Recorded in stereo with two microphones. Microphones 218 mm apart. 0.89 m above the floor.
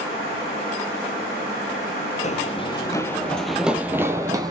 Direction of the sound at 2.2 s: 35° left (ahead or behind).